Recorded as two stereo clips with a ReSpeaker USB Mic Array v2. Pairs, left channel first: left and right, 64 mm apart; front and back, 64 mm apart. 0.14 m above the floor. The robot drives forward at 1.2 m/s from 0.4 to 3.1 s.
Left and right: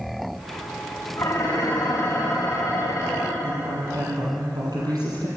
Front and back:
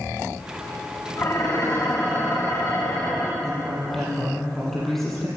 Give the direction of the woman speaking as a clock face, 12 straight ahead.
3 o'clock.